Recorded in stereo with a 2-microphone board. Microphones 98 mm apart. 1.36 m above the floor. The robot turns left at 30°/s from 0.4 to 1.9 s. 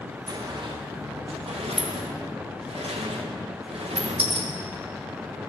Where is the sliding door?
45° right (ahead or behind), 1.6 m; by 4.5 s 80° right, 1.6 m.